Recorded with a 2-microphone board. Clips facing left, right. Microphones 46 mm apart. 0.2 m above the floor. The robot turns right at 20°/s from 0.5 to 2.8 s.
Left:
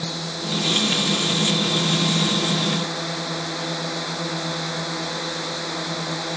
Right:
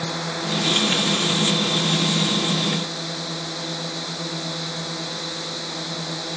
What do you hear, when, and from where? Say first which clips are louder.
0.0 s a drone: right 2 dB; 20° right; by 6.4 s 25° left